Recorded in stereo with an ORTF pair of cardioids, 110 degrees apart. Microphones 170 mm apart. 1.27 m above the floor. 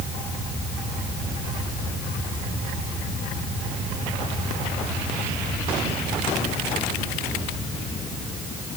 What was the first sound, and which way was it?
Only background noise.